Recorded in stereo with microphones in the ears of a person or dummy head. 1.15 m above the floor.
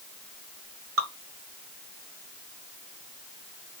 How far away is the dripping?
About 1.3 m.